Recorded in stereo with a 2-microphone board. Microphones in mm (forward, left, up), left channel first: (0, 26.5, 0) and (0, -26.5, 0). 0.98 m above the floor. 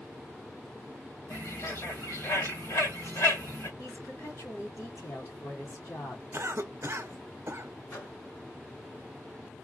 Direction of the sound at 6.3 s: 55° right (ahead or behind).